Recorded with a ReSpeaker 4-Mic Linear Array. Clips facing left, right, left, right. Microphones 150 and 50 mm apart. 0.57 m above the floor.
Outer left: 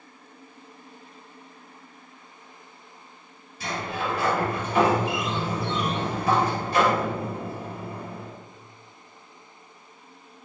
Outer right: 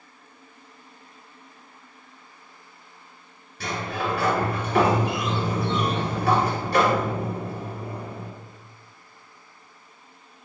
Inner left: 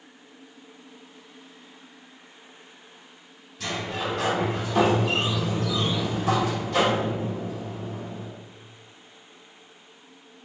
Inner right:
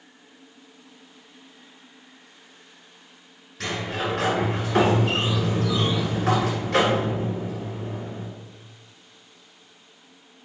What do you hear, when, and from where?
3.6 s a sliding door: 75° right (ahead or behind), 1.6 m